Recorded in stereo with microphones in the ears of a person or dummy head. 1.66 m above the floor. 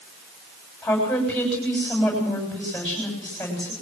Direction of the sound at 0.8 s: 5° left (ahead or behind).